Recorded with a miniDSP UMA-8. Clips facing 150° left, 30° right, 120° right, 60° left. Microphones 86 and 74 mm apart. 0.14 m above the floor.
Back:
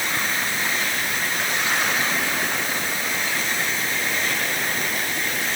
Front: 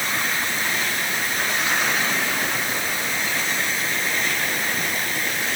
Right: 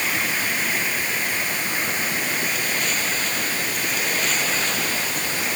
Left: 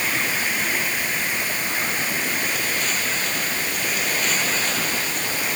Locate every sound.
Only background noise.